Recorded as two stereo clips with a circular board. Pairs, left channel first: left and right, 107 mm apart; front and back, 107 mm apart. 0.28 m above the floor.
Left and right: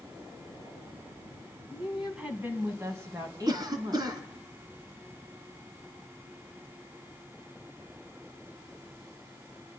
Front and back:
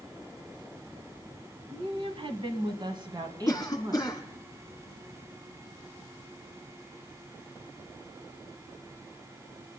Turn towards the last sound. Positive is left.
turn(degrees=-55)